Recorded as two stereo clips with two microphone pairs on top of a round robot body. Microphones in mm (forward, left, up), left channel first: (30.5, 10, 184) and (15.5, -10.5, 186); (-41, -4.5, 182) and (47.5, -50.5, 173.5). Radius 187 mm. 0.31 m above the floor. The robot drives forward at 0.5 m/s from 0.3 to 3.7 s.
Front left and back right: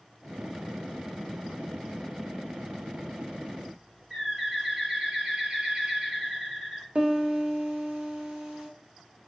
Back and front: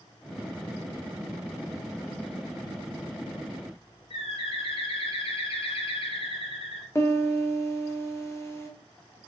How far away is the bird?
About 1.3 m.